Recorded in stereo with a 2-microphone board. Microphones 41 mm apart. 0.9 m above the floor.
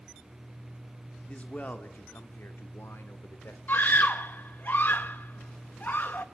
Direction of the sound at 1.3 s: 30° left (ahead or behind).